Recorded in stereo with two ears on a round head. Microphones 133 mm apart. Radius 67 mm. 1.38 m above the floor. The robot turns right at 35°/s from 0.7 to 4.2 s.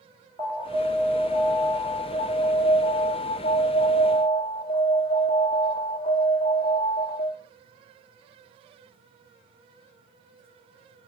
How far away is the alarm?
About 1.7 m.